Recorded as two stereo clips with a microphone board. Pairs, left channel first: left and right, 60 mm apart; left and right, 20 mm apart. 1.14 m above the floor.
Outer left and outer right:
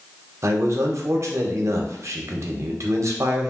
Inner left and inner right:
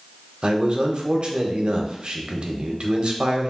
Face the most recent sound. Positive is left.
turn(degrees=-55)  # may be behind; listen again after turning